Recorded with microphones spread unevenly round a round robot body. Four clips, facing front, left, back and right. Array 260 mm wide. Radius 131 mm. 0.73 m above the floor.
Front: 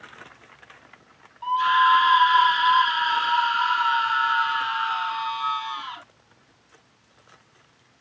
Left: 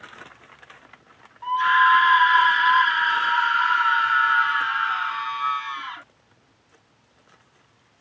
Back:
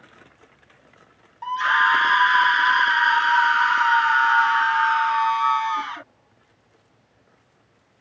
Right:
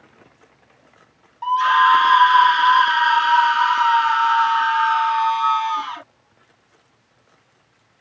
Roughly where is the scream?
Behind right.